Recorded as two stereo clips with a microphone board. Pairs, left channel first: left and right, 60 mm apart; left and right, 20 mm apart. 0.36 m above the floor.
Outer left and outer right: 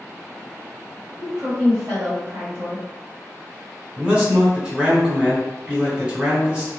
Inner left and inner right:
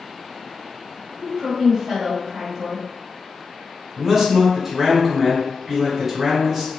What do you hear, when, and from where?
1.2 s a woman speaking: 5° right (ahead or behind), 1.6 m
4.0 s a man speaking: 15° right (ahead or behind), 1.0 m